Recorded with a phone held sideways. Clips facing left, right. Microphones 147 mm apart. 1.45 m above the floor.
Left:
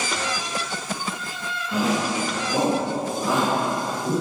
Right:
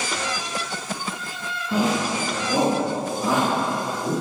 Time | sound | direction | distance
1.7 | a shout | 30° right (ahead or behind) | 2 m